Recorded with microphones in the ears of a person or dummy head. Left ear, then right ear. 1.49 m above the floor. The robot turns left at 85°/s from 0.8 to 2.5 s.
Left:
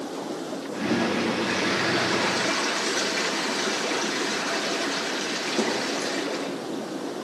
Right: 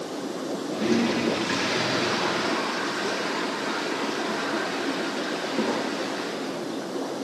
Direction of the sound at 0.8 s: 115° right.